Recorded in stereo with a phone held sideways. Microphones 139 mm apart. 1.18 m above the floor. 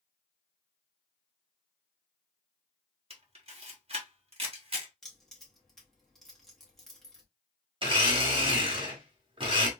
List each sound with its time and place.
3.1 s a camera shutter: 45° right (ahead or behind), 1.2 m
5.0 s keys jangling: centre (ahead or behind), 1.5 m
7.8 s a blender: 40° right (ahead or behind), 1.1 m